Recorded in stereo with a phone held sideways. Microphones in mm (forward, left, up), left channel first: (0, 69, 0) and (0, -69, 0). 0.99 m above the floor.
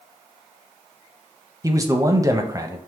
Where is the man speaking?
25° right (ahead or behind), 0.5 m.